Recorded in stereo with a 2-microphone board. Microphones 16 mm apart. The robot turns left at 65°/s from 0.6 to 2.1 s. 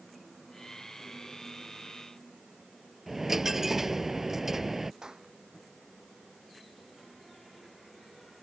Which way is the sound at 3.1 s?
30° right (ahead or behind).